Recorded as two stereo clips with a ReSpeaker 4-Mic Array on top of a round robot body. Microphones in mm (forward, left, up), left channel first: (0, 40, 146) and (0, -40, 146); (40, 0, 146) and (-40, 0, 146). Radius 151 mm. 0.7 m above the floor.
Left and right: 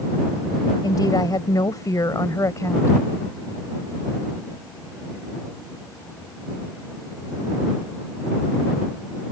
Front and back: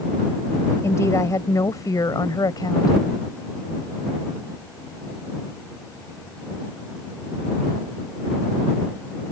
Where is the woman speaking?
55° left; by 3.0 s 35° left.